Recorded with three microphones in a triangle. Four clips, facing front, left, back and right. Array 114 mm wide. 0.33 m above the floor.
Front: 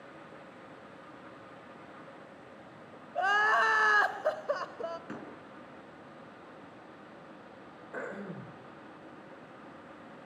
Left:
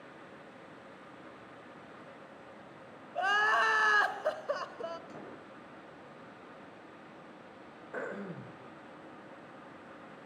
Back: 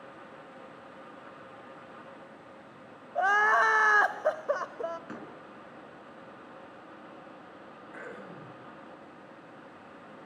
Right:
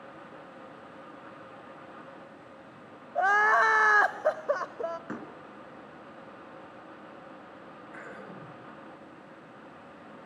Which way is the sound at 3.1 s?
115° right.